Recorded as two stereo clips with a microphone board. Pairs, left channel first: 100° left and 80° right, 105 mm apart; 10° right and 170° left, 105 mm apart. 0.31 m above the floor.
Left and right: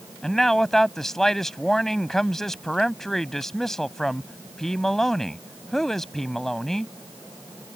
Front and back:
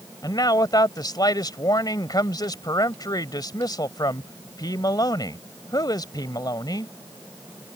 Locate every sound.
0.2 s a man speaking: 15° left